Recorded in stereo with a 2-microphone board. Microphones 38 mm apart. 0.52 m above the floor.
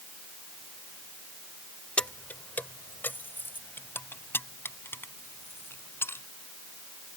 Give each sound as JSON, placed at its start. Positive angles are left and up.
{"t": 2.0, "sound": "keys jangling", "side_deg": 30}